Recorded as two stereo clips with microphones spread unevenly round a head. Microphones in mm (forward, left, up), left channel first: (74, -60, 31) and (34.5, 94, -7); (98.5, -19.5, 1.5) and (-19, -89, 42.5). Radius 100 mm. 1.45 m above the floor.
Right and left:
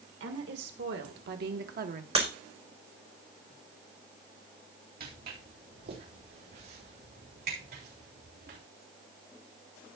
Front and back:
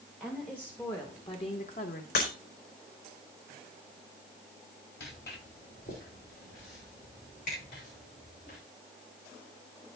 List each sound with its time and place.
0.2 s a woman speaking: 120° left, 2.5 m; by 2.0 s 65° left, 1.5 m
2.1 s breaking glass: 50° left, 4.5 m
5.0 s footsteps: 75° left, 4 m; by 8.6 s 85° left, 7.5 m